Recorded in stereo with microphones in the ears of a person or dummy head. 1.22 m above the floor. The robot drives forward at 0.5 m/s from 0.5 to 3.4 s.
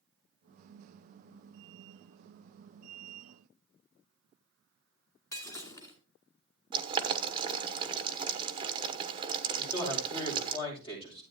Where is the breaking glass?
15° left (ahead or behind), 2 m.